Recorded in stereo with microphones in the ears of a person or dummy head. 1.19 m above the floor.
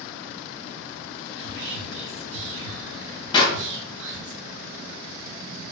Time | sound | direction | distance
1.4 | whispering | 70° right (ahead or behind) | 1.0 m
3.3 | a clap | 30° left (ahead or behind) | 0.7 m